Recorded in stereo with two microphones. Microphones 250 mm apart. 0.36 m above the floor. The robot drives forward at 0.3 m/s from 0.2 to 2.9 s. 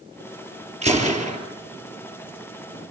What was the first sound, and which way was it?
A gunshot, 25° right (ahead or behind).